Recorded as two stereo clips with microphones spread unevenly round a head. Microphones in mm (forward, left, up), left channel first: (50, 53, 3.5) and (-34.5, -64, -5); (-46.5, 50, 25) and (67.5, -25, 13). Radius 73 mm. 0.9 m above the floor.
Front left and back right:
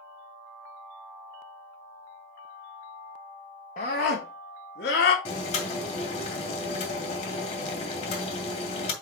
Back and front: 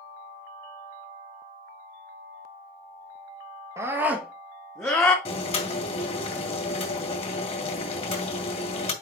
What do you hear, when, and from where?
3.8 s a scream: 25° left, 1.3 m; by 5.2 s 80° left, 2 m
5.2 s boiling: 100° left, 2 m